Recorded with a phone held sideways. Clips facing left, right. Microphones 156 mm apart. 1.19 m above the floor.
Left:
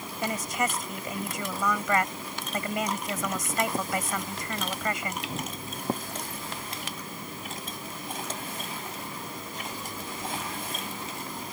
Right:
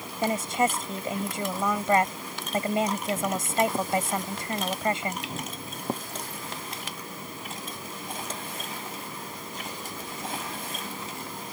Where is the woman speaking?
30° right (ahead or behind).